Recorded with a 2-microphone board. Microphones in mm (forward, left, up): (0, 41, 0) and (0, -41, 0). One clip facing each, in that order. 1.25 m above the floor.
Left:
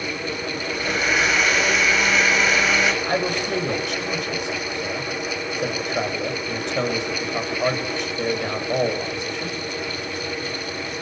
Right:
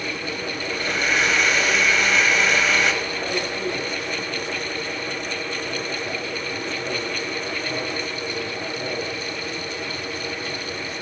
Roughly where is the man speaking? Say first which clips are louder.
Left 4 dB; left.